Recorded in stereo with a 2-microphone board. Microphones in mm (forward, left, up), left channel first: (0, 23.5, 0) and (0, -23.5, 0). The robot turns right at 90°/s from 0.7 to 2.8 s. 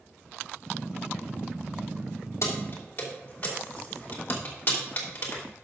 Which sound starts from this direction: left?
Keys jangling, at 2.4 s.